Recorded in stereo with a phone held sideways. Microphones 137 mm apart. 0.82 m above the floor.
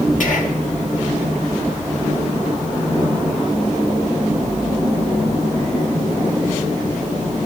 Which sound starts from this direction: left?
Whispering, at 0.2 s.